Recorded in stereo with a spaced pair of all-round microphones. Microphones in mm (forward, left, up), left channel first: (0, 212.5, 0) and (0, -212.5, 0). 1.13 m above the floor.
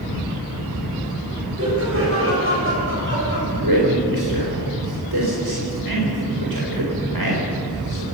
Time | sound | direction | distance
1.6 | laughter | 35° right (ahead or behind) | 6.5 m
3.5 | a man speaking | 65° right (ahead or behind) | 4 m